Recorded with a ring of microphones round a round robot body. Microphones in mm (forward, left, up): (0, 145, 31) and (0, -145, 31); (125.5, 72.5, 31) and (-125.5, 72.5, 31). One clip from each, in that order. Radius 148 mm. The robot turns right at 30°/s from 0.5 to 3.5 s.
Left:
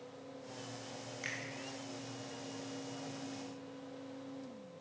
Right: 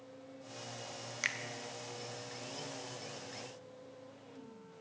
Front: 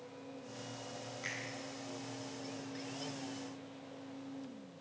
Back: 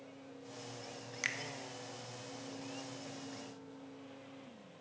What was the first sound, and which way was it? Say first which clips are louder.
A finger snap: right 6 dB, back 5 dB; 140° right.